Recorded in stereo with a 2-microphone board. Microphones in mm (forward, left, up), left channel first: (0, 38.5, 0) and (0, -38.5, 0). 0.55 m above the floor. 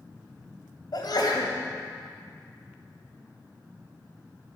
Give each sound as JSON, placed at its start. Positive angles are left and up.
{"t": 0.9, "sound": "a sneeze", "side_deg": 65, "distance_m": 2.5}